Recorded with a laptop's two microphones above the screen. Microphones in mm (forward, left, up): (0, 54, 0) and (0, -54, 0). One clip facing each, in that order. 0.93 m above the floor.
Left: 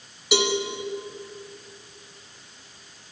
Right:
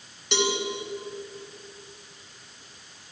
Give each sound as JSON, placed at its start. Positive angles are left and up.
{"t": 0.3, "sound": "a cowbell", "side_deg": 5, "distance_m": 1.7}